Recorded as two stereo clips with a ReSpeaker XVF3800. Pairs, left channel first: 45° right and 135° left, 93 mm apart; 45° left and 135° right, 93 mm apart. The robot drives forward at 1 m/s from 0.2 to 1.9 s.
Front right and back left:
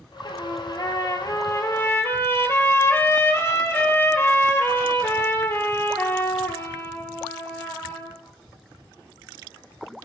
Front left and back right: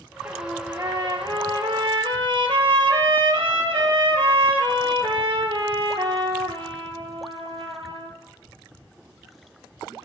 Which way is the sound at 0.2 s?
75° right.